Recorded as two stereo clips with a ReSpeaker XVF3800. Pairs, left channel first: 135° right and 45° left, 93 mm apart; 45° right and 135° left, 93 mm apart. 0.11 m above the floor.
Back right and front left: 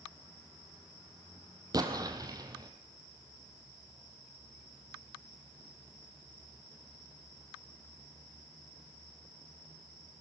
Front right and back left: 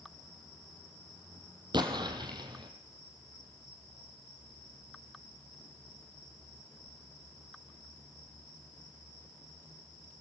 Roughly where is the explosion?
Left.